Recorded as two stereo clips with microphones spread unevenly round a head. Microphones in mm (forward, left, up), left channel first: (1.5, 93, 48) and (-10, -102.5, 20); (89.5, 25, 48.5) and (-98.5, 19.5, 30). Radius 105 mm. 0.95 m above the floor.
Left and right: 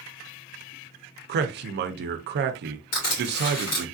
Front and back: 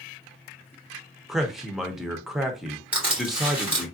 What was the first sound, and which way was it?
A man speaking, 95° right.